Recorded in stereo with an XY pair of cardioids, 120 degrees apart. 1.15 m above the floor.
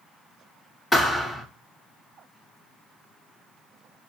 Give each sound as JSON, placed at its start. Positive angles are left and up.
{"t": 0.9, "sound": "a thud", "azimuth_deg": 15, "distance_m": 8.0}